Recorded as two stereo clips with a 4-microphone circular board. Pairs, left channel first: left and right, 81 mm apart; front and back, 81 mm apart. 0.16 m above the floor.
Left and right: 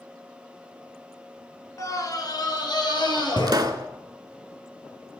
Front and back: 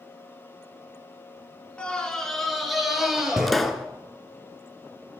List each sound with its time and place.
1.8 s a scream: 70° left, 1.9 m; by 3.7 s 95° left, 3.5 m
3.5 s a pop: 90° right, 0.6 m